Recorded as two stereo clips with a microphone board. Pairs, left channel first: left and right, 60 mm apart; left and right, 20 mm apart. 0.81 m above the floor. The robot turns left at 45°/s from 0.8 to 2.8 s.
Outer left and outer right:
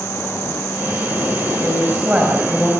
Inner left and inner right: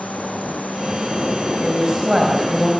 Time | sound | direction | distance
1.6 | a woman speaking | 130° right | 5 m